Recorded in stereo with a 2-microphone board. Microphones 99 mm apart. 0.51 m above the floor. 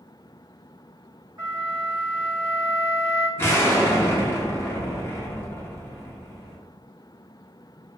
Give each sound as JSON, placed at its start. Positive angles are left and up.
{"t": 1.4, "sound": "a flute", "side_deg": -45, "distance_m": 1.7}
{"t": 3.4, "sound": "an explosion", "side_deg": 25, "distance_m": 0.6}